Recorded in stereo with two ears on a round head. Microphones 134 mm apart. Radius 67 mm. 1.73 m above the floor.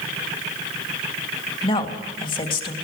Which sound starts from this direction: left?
A woman speaking, at 1.6 s.